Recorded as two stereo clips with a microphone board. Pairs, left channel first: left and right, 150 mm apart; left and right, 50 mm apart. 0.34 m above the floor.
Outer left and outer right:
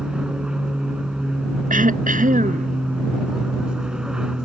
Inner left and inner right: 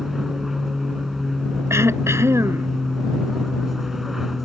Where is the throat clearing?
65° right (ahead or behind).